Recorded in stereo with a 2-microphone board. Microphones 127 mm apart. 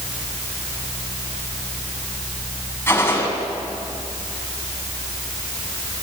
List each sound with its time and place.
2.9 s a gunshot: 20° left (ahead or behind), 4.5 m